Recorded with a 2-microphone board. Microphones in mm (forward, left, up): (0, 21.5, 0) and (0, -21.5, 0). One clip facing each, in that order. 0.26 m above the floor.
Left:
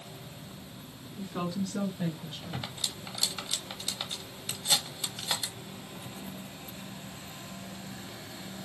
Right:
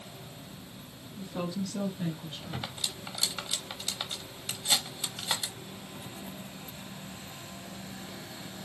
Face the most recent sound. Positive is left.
turn(degrees=-10)  # may be behind; listen again after turning